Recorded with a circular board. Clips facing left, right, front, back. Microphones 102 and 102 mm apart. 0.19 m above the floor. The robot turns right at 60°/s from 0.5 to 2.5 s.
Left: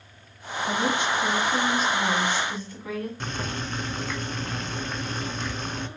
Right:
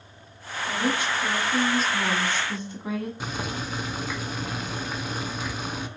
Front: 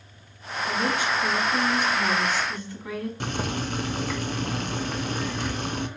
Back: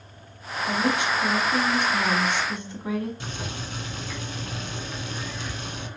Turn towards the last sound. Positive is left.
turn(degrees=-10)